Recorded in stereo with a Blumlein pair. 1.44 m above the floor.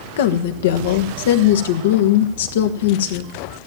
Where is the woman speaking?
60° left, 1.5 m.